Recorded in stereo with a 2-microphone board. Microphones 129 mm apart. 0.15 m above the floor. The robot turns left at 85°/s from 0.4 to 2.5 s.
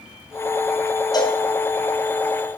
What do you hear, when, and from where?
1.1 s a cowbell: 30° left (ahead or behind), 1.1 m; by 1.4 s 55° left (ahead or behind), 1.1 m